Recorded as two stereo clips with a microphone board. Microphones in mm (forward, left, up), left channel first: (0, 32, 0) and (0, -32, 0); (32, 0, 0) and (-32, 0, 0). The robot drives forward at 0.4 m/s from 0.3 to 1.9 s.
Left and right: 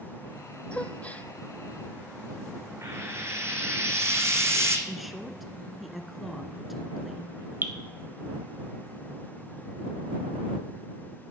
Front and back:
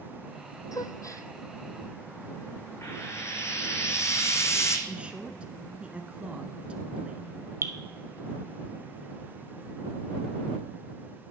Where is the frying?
45° right, 1.3 m.